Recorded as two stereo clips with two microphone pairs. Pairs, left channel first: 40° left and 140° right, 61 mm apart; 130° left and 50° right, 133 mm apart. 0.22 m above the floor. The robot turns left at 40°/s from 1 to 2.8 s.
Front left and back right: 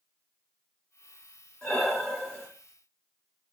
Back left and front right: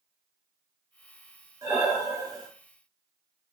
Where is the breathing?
25° right, 1.5 m; by 2.5 s 60° right, 1.5 m.